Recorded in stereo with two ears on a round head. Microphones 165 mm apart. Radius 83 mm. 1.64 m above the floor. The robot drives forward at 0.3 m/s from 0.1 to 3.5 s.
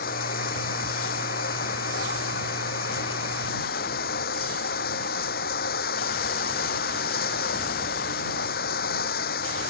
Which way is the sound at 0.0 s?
50° left (ahead or behind).